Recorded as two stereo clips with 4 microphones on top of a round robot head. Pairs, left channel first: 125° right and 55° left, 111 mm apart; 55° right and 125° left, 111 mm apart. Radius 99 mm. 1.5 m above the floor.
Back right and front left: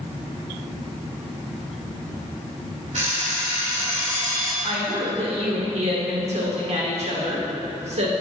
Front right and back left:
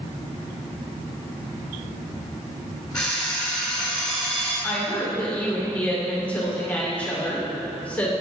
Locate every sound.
2.9 s an alarm clock: 30° left, 3 m
4.6 s a woman speaking: 25° left, 1.9 m